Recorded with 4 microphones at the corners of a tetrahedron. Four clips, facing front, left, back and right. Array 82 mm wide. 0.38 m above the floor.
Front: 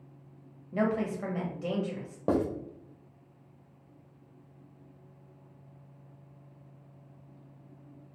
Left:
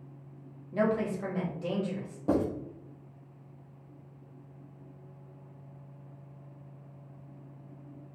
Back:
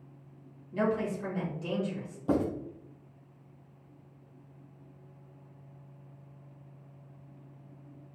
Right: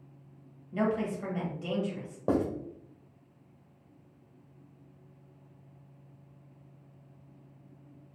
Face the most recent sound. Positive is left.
turn(degrees=-20)